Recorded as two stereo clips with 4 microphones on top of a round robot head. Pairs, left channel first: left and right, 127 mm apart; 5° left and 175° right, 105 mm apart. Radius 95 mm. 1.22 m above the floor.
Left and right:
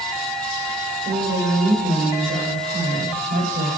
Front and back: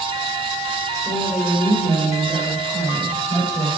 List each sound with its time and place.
1.1 s a woman speaking: 80° right, 6.5 m